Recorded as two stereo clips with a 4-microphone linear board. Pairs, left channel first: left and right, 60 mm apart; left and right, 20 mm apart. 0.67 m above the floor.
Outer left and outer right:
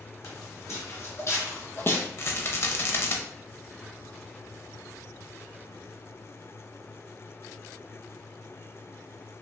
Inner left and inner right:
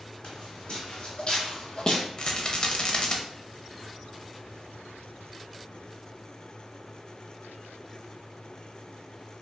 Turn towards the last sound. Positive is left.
turn(degrees=45)  # may be behind; listen again after turning